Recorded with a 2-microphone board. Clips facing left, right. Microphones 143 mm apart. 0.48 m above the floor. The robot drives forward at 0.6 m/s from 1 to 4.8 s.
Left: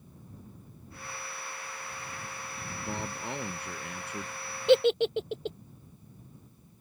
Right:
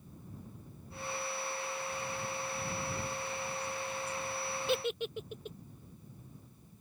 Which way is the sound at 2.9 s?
75° left (ahead or behind).